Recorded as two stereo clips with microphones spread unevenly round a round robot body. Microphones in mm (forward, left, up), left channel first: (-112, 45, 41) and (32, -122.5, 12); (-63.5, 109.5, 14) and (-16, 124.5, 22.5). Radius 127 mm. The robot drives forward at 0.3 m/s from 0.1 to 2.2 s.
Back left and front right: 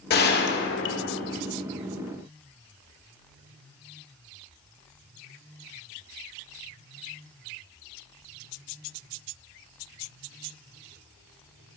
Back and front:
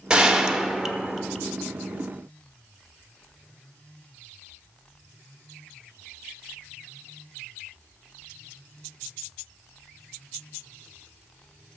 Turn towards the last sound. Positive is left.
turn(degrees=135)